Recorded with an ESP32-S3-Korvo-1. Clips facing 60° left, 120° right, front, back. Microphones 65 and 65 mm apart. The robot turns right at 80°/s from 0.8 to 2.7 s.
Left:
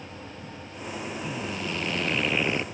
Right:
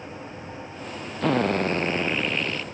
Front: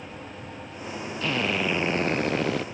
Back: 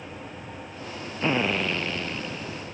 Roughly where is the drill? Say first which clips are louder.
Right 15 dB, back 2 dB; behind right.